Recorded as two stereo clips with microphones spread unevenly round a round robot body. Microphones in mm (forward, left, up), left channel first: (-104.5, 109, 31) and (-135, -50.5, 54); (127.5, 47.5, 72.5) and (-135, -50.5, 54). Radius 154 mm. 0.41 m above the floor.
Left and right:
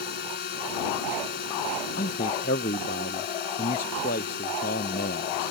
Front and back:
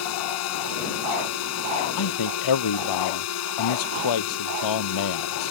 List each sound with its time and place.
0.0 s a drone: 55° left
2.0 s a man speaking: 25° left